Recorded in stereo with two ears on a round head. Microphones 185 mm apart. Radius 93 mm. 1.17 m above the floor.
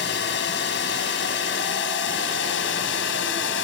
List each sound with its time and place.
0.0 s a drone: 55° left (ahead or behind); by 3.6 s 60° left (ahead or behind)